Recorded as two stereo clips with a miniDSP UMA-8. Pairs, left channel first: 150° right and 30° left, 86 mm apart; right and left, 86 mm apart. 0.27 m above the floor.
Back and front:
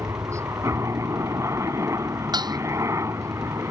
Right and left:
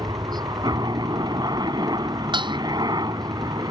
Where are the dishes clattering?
65° left.